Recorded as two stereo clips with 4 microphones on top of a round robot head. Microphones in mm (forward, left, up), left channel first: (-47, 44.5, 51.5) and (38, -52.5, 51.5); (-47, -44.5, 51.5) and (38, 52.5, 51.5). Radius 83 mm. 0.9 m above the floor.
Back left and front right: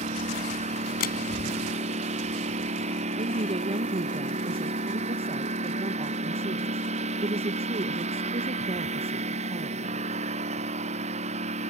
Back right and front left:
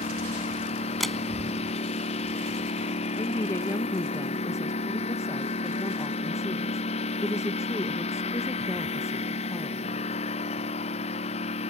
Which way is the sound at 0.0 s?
90° right.